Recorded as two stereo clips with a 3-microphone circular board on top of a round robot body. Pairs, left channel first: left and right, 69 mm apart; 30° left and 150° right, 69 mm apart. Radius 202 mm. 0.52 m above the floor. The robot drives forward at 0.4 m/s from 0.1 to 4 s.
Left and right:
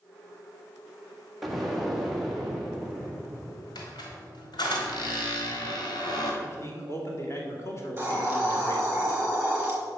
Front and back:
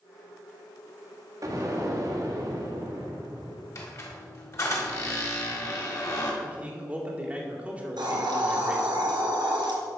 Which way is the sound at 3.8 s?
75° left.